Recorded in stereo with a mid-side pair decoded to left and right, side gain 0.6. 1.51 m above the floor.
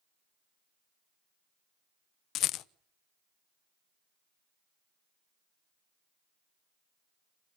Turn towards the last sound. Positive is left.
turn(degrees=60)